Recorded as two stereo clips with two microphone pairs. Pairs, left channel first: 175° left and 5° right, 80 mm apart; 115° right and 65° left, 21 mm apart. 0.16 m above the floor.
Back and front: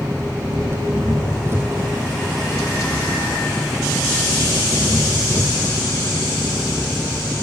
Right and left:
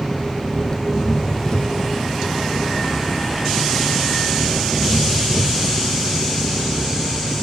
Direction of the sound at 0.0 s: 60° right.